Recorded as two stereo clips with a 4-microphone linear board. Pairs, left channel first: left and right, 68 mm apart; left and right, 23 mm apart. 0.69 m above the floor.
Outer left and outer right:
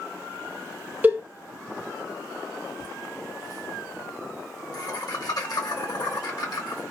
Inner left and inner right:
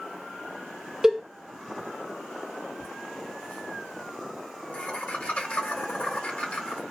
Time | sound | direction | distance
1.0 | a cowbell | 25° right (ahead or behind) | 0.7 m
2.8 | laughter | 70° left (ahead or behind) | 1.6 m